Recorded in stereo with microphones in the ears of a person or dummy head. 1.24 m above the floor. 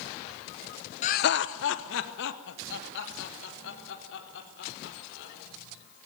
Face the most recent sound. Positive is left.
turn(degrees=65)  # may be behind; listen again after turning